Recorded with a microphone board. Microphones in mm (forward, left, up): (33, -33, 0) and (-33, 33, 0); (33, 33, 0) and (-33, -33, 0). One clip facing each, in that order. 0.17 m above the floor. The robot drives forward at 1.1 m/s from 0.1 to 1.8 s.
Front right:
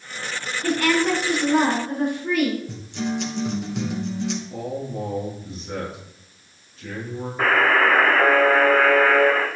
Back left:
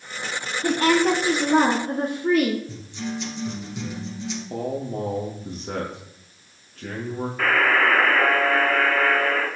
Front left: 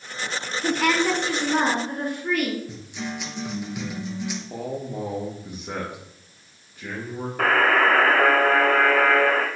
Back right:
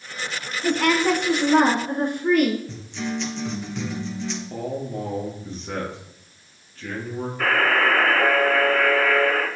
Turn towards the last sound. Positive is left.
turn(degrees=20)